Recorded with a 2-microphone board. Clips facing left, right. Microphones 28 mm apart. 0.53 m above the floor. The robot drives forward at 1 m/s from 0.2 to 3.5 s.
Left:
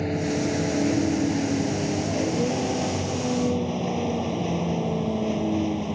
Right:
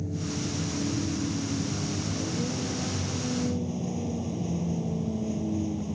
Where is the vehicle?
90° left; by 6.0 s 45° left (ahead or behind).